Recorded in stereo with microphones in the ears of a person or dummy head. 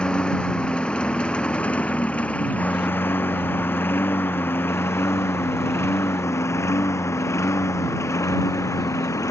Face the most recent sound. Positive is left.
turn(degrees=15)  # may be behind; listen again after turning